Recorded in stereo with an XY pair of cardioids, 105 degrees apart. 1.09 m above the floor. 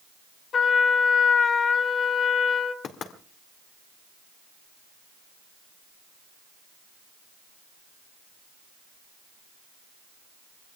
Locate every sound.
0.5 s a trumpet: 50° left, 1.9 m
2.8 s knocking: 60° left, 2.0 m